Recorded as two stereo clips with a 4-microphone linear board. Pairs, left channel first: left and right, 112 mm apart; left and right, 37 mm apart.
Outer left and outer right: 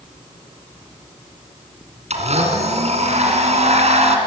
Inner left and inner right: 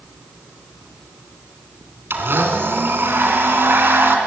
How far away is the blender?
About 2.5 m.